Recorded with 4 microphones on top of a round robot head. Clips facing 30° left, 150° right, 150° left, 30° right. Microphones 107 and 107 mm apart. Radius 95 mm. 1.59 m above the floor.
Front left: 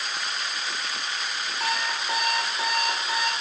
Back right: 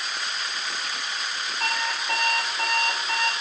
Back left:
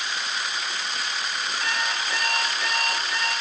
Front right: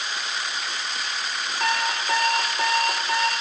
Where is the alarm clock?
50° right, 3 m.